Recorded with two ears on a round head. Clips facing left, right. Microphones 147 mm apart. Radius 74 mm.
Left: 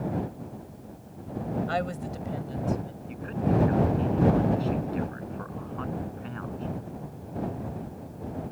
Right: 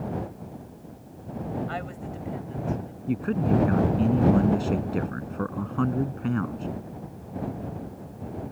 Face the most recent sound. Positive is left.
turn(degrees=-60)  # may be behind; listen again after turning